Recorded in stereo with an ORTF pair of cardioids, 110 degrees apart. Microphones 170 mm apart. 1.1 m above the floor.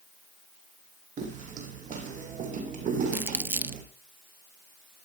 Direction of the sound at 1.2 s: 50° right.